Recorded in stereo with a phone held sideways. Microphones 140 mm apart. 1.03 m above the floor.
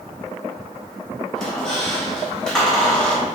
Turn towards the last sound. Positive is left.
turn(degrees=5)  # may be behind; listen again after turning